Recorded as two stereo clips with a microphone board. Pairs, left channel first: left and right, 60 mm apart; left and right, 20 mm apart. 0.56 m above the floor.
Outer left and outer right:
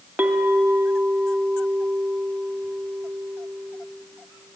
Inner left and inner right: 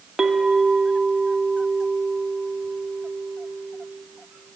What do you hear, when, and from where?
0.2 s a clink: 35° right (ahead or behind), 0.7 m